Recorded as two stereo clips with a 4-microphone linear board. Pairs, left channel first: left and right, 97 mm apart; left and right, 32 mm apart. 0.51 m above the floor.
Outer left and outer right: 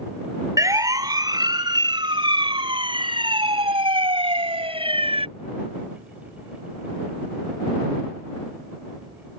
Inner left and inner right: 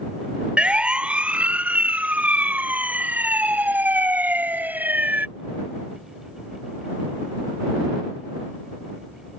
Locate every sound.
0.6 s a siren: 35° right (ahead or behind); by 5.3 s 70° right (ahead or behind)